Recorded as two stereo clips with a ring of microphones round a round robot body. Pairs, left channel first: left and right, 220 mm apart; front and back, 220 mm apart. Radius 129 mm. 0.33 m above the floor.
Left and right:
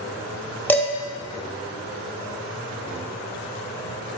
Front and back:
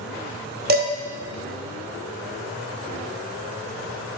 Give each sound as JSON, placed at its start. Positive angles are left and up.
{"t": 0.7, "sound": "dishes clattering", "azimuth_deg": 170, "distance_m": 0.8}